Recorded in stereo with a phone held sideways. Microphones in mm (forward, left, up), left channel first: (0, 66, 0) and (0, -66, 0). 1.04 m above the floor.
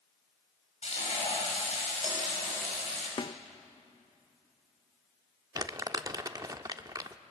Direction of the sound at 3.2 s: 40° left (ahead or behind).